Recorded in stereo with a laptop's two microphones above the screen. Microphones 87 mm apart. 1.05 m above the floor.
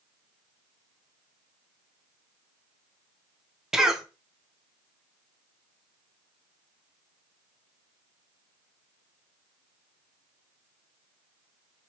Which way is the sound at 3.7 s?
5° right (ahead or behind).